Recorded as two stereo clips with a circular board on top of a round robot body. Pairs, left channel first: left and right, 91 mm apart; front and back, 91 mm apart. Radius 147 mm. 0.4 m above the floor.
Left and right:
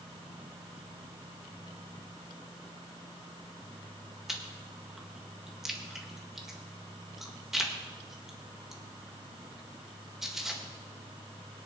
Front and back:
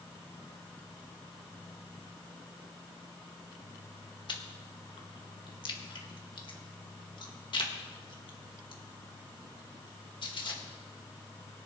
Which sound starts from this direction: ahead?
Chewing, at 4.3 s.